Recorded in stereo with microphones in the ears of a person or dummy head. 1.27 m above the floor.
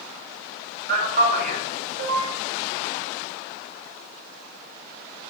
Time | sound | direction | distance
0.9 | a man speaking | 50° right (ahead or behind) | 0.6 m